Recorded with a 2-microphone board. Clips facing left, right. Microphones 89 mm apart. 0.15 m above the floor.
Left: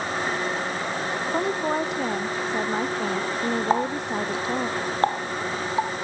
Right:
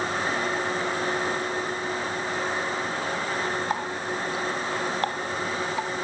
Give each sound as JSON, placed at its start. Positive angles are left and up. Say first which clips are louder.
{"t": 1.3, "sound": "a woman speaking", "louder": "left 5 dB", "side_deg": 80}
{"t": 3.7, "sound": "a running tap", "louder": "left 5 dB", "side_deg": 25}